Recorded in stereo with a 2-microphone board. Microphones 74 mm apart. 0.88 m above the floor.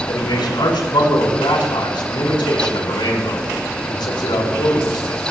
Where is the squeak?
No squeak in this recording.